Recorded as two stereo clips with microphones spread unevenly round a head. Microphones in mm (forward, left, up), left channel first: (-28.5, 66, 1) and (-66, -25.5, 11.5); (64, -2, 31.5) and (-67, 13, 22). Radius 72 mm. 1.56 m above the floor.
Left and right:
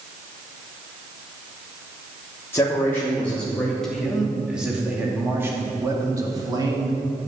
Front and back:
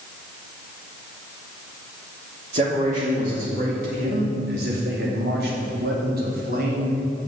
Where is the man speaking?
135° left, 3 m; by 7.0 s 155° right, 3 m.